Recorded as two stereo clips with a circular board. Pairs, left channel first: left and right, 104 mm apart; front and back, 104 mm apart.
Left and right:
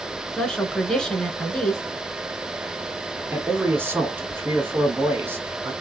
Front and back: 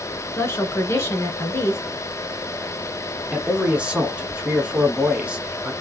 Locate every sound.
0.4 s a woman speaking: 15° left, 1.2 m
3.3 s a man speaking: 115° right, 1.2 m